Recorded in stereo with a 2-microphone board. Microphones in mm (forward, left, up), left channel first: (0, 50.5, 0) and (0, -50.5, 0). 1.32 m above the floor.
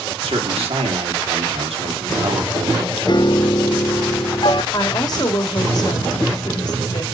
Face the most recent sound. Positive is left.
turn(degrees=40)  # may be behind; listen again after turning